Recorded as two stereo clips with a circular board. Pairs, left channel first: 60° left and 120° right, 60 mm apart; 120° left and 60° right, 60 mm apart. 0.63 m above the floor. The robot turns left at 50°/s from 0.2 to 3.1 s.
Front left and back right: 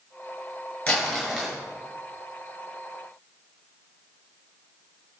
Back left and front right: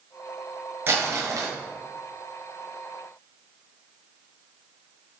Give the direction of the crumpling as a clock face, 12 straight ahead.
12 o'clock.